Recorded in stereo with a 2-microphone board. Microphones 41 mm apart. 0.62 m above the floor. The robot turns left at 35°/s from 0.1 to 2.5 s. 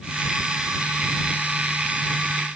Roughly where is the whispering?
No whispering in this recording.